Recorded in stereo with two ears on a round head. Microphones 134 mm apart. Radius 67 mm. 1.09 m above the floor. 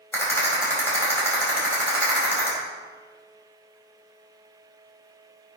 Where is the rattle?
15° left (ahead or behind), 4.5 m.